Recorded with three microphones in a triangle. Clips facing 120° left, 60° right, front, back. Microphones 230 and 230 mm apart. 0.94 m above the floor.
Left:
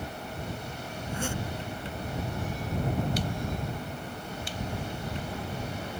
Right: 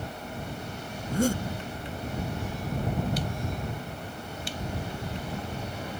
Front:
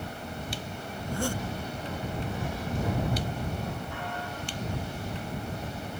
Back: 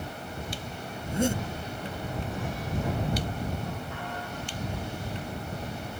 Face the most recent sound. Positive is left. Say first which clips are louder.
# right 9 dB, back 4 dB
turn(degrees=-110)